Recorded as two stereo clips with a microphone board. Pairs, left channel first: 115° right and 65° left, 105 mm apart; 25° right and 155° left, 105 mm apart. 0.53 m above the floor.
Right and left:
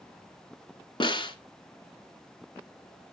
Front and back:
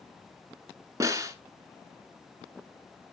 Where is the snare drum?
145° right, 1.0 m.